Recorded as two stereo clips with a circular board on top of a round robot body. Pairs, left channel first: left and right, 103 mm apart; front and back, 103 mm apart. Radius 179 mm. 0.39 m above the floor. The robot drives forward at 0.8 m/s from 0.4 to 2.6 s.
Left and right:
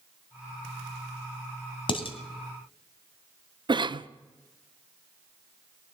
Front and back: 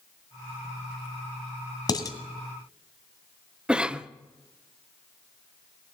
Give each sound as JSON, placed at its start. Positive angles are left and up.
{"t": 1.9, "sound": "dishes clattering", "azimuth_deg": 50, "distance_m": 2.5}
{"t": 3.7, "sound": "a cough", "azimuth_deg": -100, "distance_m": 1.0}